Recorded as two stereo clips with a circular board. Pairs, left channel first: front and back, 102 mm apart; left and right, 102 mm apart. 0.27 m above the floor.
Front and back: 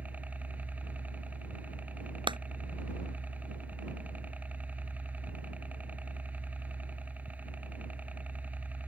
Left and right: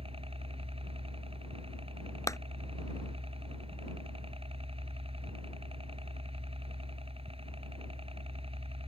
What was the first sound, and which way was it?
A helicopter, 105° right.